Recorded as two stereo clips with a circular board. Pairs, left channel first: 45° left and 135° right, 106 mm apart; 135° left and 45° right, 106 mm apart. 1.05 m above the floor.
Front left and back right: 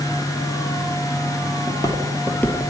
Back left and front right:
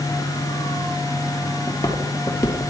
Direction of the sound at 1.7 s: 85° left.